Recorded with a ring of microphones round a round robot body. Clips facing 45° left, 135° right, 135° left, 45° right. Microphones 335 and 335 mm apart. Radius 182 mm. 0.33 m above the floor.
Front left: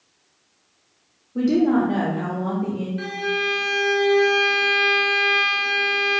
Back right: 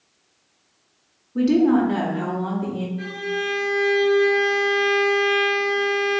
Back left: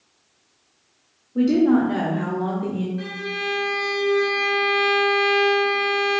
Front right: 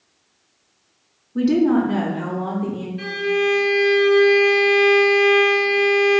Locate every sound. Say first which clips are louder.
1.4 s a woman speaking: back right 1 dB, even; 75° right, 0.9 m; by 2.9 s 160° right, 1.3 m
3.0 s a violin: front left 1 dB, front right 10 dB; 35° left, 2.0 m